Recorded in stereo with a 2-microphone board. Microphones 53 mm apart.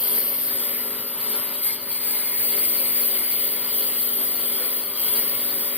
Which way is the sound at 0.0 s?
20° right (ahead or behind).